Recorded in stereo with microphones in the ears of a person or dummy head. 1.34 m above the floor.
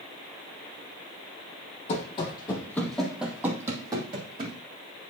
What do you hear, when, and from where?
1.9 s running footsteps: 35° left (ahead or behind), 2.0 m; by 4.6 s 35° right (ahead or behind), 3 m